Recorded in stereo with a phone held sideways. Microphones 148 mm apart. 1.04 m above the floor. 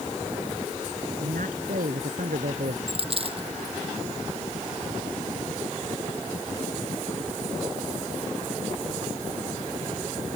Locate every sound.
1.2 s a man speaking: 85° right; by 2.8 s 75° right (ahead or behind)
2.9 s a dropped coin: 45° right (ahead or behind)